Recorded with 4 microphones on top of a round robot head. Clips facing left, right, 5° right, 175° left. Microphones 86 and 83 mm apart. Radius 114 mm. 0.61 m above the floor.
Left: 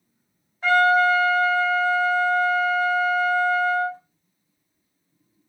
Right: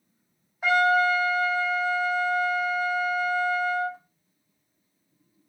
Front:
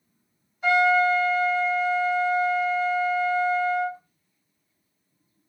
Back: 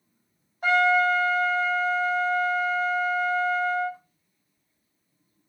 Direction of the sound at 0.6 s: 165° right.